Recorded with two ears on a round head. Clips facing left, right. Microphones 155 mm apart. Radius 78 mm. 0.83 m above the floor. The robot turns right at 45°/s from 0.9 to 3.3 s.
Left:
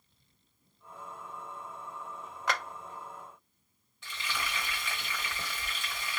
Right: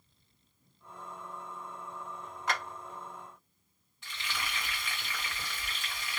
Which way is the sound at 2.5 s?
60° left (ahead or behind).